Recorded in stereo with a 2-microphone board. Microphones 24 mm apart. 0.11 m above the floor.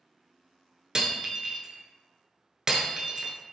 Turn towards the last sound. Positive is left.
turn(degrees=-25)  # may be behind; listen again after turning